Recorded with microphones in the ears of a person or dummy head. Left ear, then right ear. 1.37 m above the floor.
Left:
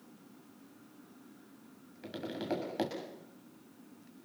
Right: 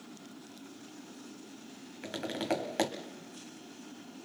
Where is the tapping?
35° right (ahead or behind), 1.6 m.